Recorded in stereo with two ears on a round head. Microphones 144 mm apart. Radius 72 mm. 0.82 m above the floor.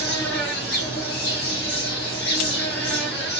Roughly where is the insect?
Left.